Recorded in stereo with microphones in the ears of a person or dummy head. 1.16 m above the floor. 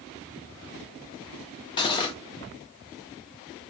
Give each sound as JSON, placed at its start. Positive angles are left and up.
{"t": 1.8, "sound": "cutlery clinking", "side_deg": 25, "distance_m": 0.8}